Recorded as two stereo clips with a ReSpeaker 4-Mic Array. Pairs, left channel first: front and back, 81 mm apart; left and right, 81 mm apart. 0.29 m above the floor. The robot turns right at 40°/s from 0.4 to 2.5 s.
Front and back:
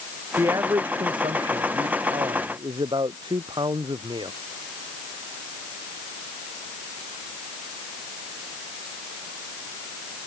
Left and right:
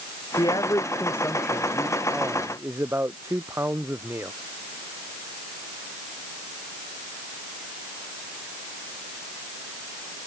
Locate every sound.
0.4 s a man speaking: 125° left; by 4.3 s 150° right